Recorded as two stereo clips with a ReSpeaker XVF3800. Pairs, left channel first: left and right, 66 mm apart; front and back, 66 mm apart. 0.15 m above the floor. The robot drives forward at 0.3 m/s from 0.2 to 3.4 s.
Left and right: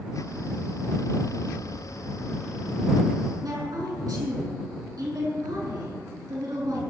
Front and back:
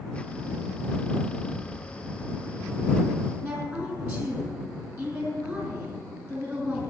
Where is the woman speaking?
120° right, 4.5 m.